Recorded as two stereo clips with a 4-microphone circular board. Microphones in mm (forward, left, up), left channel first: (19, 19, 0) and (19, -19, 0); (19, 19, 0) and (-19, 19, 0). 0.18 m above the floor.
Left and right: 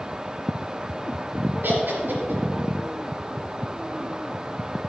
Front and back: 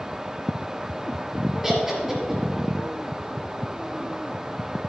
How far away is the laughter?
About 4 m.